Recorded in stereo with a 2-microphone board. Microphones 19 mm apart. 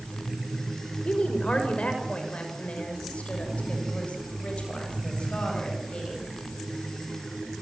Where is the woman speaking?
70° left (ahead or behind), 5.5 m; by 6.2 s 65° left (ahead or behind), 8.5 m.